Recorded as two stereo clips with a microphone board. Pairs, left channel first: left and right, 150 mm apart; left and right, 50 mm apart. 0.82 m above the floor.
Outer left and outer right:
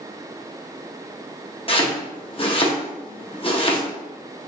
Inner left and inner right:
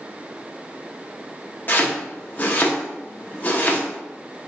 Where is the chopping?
40° left (ahead or behind), 0.8 m.